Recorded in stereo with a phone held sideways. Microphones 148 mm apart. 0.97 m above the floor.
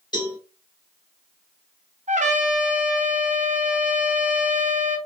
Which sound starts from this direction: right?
A trumpet, at 2.1 s.